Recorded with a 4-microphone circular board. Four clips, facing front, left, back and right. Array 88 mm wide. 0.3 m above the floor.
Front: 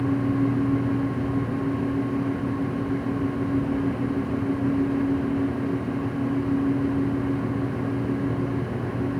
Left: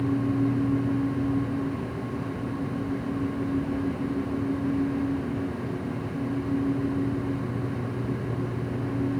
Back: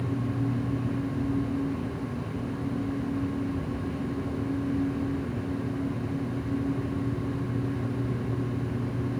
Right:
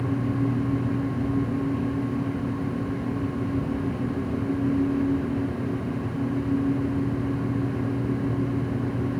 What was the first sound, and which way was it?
Only background noise.